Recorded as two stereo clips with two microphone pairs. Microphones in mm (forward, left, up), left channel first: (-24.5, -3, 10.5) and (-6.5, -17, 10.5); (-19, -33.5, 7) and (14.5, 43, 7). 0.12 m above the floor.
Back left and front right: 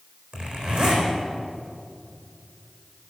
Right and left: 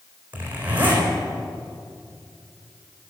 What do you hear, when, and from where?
0.3 s a zipper: straight ahead, 4 m